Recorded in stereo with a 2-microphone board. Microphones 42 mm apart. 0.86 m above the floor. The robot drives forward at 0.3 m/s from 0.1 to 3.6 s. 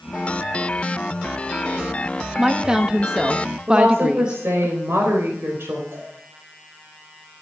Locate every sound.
2.4 s a woman speaking: 15° right (ahead or behind), 1.2 m; by 4.7 s 20° right (ahead or behind), 0.9 m
3.7 s a woman speaking: 80° right, 4 m
5.9 s a cowbell: 75° right (ahead or behind), 8 m